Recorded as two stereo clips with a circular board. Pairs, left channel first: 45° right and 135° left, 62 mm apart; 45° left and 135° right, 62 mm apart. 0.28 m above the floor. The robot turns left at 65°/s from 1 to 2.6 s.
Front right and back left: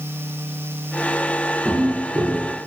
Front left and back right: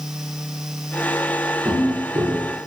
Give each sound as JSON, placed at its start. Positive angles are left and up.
{"t": 1.6, "sound": "footsteps", "azimuth_deg": -120, "distance_m": 3.5}